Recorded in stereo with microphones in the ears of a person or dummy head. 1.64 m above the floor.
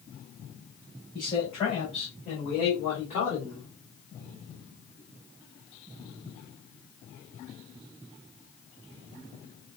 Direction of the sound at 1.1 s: 30° left (ahead or behind).